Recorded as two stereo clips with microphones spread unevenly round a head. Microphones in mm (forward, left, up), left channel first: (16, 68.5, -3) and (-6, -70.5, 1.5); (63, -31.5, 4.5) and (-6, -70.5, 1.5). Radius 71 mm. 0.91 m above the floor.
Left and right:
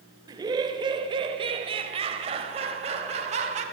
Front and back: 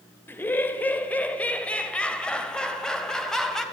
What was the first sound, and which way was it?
Laughter, 35° right.